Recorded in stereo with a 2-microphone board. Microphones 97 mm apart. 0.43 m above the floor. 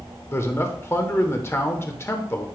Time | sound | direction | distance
0.3 | a man speaking | 25° left (ahead or behind) | 0.9 m